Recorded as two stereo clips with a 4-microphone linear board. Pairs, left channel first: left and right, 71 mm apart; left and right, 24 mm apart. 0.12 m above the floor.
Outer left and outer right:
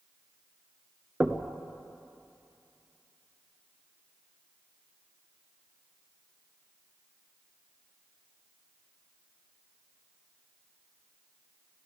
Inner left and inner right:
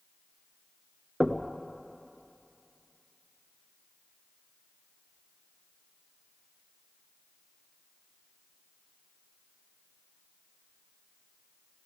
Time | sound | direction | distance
1.2 | knocking | 25° right (ahead or behind) | 1.1 m